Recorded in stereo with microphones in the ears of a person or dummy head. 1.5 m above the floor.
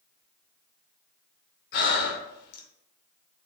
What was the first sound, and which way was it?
Breathing, 60° left (ahead or behind).